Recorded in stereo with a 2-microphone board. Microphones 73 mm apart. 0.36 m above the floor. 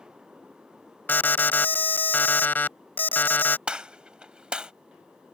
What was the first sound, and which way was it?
An alarm, 30° left (ahead or behind).